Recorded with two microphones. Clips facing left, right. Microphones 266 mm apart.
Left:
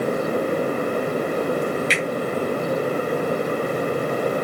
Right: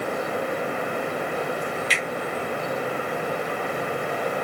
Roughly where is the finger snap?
Left.